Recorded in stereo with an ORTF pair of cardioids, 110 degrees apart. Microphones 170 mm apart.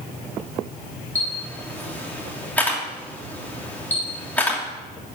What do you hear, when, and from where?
1.1 s a camera shutter: 10° left, 2.5 m